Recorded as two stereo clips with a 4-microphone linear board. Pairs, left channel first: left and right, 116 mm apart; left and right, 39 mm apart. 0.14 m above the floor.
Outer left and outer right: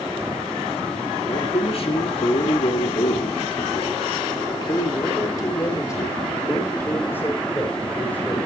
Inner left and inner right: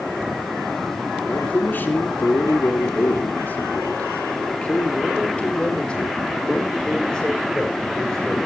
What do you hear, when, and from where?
1.3 s a man speaking: 60° left (ahead or behind), 3 m; by 8.4 s 10° left (ahead or behind), 5 m